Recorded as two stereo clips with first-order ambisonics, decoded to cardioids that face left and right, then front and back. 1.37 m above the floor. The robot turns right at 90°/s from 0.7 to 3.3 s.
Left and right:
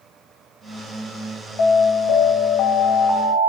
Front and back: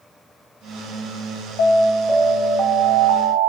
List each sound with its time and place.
1.6 s an alarm: 45° left, 1.3 m; by 3.5 s 165° right, 1.3 m